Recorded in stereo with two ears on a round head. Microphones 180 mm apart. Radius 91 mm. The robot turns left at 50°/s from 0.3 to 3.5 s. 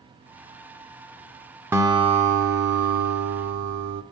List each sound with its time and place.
1.7 s a guitar: 10° right, 0.6 m; by 4.0 s 100° right, 0.6 m